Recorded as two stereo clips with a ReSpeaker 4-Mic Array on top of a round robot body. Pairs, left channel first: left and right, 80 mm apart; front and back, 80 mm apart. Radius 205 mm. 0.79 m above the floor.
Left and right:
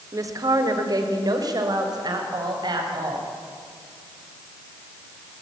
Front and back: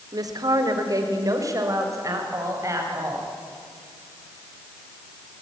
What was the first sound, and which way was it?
A woman speaking, 140° right.